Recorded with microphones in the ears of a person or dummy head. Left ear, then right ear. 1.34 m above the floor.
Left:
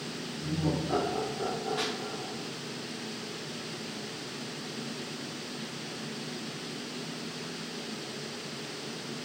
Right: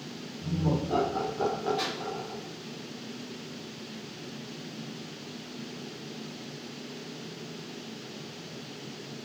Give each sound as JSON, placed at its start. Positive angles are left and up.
{"t": 0.4, "sound": "laughter", "side_deg": 55, "distance_m": 1.5}
{"t": 1.8, "sound": "a pop", "side_deg": 25, "distance_m": 0.9}